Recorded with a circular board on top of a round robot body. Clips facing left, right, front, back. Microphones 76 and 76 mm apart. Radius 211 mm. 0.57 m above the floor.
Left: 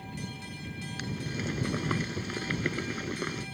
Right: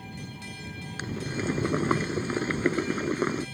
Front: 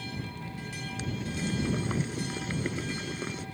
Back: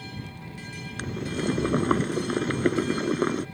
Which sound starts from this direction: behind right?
Boiling, at 1.0 s.